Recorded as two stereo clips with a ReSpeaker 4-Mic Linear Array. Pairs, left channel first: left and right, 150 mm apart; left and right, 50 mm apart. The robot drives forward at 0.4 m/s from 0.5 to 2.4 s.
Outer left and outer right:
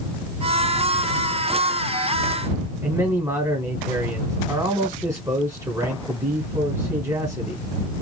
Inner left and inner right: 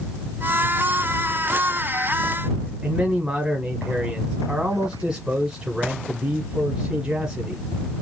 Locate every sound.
2.8 s a man speaking: 20° right (ahead or behind), 1.1 m